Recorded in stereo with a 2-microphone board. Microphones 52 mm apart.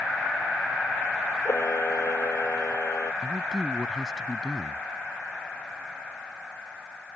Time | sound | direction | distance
1.4 | a camera shutter | 65° left (ahead or behind) | ?
3.2 | a man speaking | 10° right (ahead or behind) | ?